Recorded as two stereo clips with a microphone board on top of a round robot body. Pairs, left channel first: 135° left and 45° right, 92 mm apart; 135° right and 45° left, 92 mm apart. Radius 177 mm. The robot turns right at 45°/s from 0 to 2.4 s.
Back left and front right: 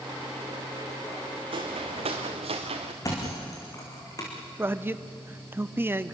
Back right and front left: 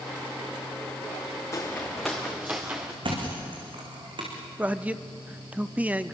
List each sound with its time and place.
1.5 s footsteps: 75° right, 1.9 m; by 2.9 s 30° right, 2.5 m
3.0 s a thud: 80° left, 5 m
4.6 s a man speaking: 10° right, 1.0 m